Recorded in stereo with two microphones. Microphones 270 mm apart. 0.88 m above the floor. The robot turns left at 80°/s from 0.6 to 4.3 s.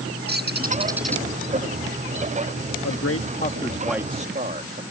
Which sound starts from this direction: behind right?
A bird, at 0.3 s.